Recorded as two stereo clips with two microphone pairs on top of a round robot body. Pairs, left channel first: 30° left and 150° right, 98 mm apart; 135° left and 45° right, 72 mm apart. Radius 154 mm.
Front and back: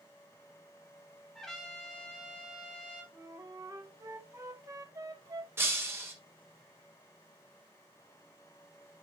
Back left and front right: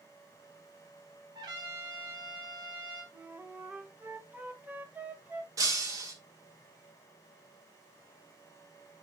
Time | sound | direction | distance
1.4 | a trumpet | 60° right | 1.7 m
3.1 | a flute | 110° right | 1.2 m
5.6 | breaking glass | 85° right | 1.6 m